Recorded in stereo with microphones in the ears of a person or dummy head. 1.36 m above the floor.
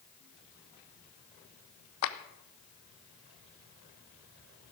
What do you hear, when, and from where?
2.0 s a clap: 80° left, 1.0 m